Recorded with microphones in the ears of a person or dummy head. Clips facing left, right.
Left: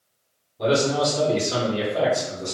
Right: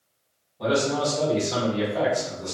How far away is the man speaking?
About 1.9 m.